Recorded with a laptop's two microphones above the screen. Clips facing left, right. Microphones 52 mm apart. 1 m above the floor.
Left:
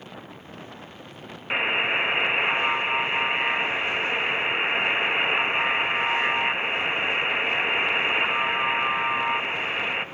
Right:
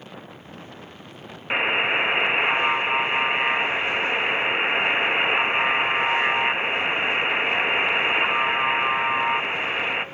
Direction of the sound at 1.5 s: 15° right (ahead or behind).